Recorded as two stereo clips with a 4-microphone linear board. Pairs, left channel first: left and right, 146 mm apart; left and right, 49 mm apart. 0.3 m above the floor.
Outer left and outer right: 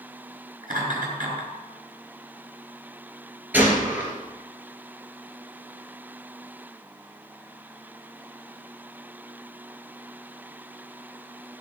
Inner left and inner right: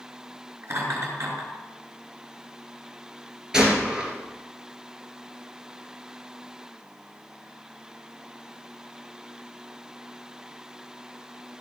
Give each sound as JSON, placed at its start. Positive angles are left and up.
{"t": 0.6, "sound": "laughter", "side_deg": -65, "distance_m": 4.5}
{"t": 3.5, "sound": "a gunshot", "side_deg": -10, "distance_m": 2.5}